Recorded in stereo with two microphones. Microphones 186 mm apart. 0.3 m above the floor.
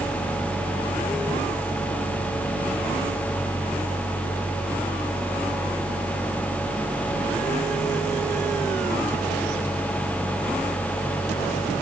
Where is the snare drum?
I don't hear a snare drum.